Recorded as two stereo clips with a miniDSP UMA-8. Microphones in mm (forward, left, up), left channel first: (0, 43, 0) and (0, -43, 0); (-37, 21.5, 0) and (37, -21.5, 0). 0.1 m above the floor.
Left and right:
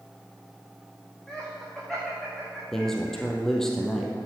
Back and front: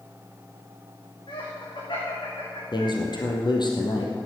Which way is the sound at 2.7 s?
175° left.